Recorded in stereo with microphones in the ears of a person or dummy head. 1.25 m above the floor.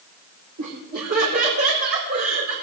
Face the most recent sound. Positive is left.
turn(degrees=-55)  # may be behind; listen again after turning